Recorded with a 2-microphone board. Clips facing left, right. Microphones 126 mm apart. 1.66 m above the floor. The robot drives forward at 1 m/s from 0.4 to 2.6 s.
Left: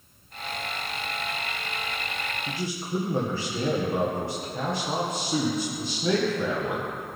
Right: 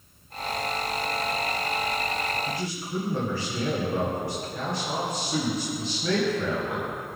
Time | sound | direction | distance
2.5 | a man speaking | 30° left (ahead or behind) | 1.6 m